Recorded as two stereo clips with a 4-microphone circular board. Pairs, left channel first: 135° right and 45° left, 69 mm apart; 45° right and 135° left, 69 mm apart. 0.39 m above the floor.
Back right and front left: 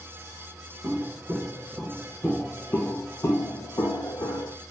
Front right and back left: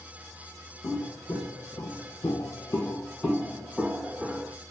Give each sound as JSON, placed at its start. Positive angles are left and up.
{"t": 0.8, "sound": "footsteps", "azimuth_deg": -15, "distance_m": 1.1}